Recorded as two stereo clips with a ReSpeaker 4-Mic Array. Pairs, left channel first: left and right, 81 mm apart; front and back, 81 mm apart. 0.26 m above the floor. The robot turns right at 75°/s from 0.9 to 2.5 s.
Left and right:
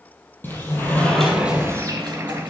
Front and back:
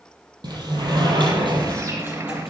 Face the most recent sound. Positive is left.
turn(degrees=-85)